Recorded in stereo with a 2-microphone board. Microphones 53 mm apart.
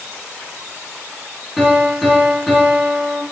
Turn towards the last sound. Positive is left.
turn(degrees=-5)  # may be behind; listen again after turning